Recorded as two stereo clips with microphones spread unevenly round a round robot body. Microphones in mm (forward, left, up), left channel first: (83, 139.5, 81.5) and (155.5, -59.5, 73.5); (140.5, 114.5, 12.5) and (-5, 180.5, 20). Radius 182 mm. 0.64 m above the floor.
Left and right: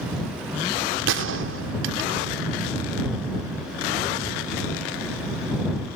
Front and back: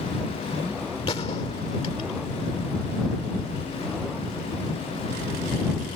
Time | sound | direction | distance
1.1 | a gunshot | 90° right | ?